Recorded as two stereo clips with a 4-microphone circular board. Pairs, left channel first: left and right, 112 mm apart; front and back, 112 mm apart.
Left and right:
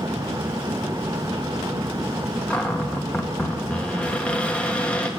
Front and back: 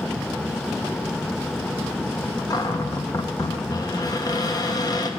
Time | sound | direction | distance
2.5 | a cupboard door | 15° left | 0.9 m